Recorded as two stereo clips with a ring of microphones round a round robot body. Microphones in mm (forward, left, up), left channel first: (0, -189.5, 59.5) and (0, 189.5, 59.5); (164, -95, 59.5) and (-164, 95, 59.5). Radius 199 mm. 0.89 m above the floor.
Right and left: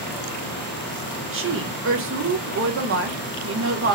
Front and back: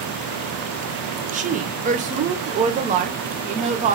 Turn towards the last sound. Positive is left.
turn(degrees=95)